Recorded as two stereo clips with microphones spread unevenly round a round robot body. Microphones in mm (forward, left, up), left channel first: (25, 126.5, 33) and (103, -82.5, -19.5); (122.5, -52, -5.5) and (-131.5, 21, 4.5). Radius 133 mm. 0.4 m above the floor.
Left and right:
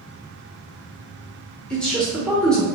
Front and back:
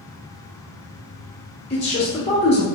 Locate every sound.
1.7 s a man speaking: 5° right, 0.8 m